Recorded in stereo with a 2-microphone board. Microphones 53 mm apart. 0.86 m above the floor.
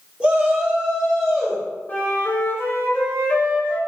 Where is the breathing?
I don't hear breathing.